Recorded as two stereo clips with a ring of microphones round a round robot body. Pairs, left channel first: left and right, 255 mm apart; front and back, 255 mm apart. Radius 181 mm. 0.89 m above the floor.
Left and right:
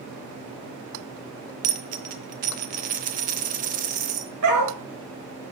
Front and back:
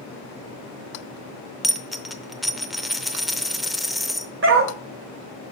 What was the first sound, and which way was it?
A dropped coin, 90° right.